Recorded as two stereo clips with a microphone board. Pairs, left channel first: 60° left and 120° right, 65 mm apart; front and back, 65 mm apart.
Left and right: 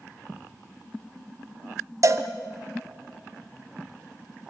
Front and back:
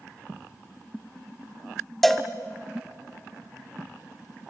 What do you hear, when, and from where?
2.0 s a cowbell: 85° right, 1.2 m